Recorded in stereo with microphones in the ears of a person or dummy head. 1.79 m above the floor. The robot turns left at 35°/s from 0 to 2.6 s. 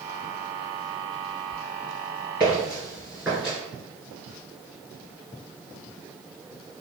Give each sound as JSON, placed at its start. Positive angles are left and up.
{"t": 2.4, "sound": "footsteps", "side_deg": -15, "distance_m": 1.8}